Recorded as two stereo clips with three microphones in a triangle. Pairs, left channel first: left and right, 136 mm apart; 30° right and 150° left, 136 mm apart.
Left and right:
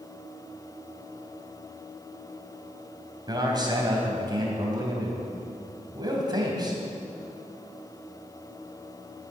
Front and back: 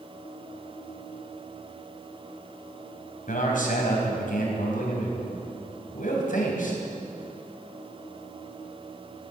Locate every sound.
3.3 s a man speaking: 30° right, 3.5 m